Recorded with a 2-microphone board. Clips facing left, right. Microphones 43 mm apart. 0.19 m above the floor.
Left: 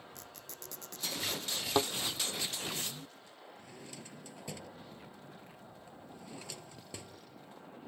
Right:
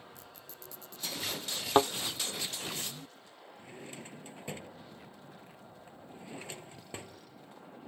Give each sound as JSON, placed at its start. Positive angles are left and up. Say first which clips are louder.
{"t": 0.1, "sound": "a squeak", "louder": "left 1 dB", "side_deg": 70}
{"t": 1.8, "sound": "a thud", "louder": "right 6 dB", "side_deg": -40}
{"t": 3.6, "sound": "a drawer", "louder": "right 5 dB", "side_deg": -35}